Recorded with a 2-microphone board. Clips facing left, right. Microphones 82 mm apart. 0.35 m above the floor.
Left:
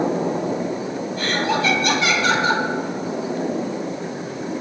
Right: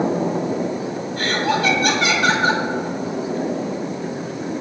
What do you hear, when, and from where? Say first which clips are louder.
1.2 s laughter: right 2 dB; 75° right (ahead or behind), 5 m